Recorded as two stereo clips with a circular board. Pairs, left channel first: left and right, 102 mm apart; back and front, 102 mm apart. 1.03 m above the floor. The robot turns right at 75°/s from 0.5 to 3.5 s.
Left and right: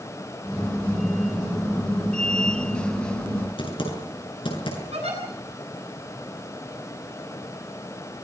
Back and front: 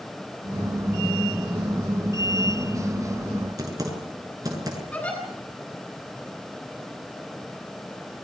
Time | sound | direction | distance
3.6 | typing on a keyboard | 55° left | 7.5 m
4.9 | a giggle | 105° right | 9.5 m